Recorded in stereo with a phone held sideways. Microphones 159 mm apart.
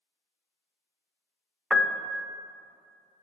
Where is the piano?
5° right (ahead or behind), 0.5 m.